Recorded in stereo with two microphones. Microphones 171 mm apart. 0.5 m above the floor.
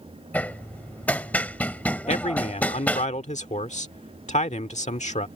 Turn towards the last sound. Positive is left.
turn(degrees=45)  # may be behind; listen again after turning